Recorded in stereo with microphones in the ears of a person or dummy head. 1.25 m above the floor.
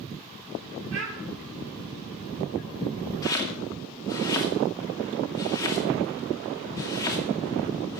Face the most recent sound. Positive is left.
turn(degrees=15)  # may be behind; listen again after turning